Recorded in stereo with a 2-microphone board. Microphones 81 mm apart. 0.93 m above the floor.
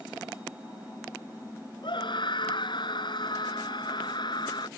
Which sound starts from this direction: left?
A scream, at 1.8 s.